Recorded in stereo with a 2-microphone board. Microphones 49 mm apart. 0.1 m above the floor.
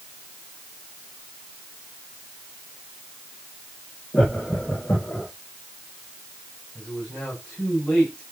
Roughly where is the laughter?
Left.